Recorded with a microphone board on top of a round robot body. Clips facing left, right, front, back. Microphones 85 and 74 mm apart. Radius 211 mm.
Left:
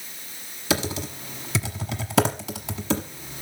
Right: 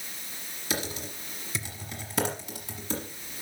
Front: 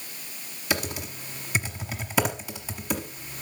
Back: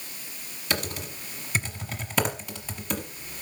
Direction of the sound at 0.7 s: 85° left.